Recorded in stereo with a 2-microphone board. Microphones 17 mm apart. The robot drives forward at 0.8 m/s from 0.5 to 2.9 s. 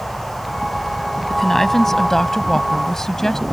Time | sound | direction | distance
1.3 | a woman speaking | 25° left (ahead or behind) | ?